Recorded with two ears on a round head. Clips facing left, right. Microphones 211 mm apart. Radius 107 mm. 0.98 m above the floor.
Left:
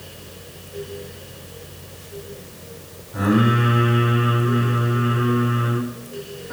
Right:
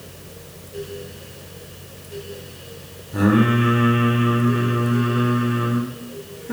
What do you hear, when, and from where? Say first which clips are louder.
3.1 s singing: right 2 dB; 55° right (ahead or behind), 3 m